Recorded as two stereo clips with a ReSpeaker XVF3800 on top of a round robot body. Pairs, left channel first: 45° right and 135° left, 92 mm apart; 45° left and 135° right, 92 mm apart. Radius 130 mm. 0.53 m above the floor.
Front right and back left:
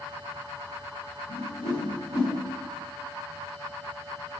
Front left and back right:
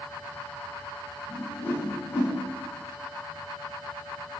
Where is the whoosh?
20° right, 1.0 m.